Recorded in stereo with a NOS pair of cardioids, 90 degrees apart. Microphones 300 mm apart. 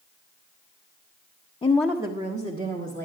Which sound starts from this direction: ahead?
A woman speaking, at 1.6 s.